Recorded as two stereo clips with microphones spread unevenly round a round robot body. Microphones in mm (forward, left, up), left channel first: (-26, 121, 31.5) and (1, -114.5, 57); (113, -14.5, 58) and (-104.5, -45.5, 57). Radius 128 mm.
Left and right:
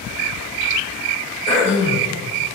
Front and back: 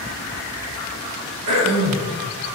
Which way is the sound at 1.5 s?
160° left.